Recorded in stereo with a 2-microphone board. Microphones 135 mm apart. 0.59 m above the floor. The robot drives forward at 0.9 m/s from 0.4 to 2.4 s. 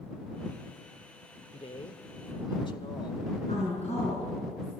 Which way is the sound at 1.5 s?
50° left (ahead or behind).